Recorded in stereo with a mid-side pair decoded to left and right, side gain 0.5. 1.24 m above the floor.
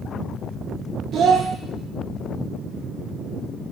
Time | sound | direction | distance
1.1 | a child speaking | 55° right | 1.3 m